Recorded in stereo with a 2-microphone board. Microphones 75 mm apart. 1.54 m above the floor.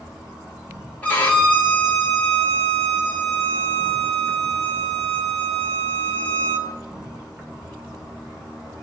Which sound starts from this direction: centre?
An insect, at 0.0 s.